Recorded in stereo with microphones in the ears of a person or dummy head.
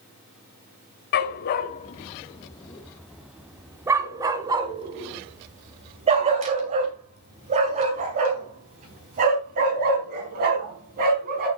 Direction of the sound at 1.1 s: 55° left (ahead or behind).